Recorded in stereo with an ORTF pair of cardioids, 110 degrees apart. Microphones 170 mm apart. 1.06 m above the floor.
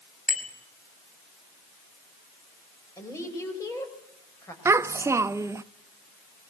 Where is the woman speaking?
20° left, 5.5 m.